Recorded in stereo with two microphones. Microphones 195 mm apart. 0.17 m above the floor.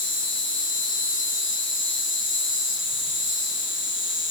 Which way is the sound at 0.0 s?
75° left (ahead or behind).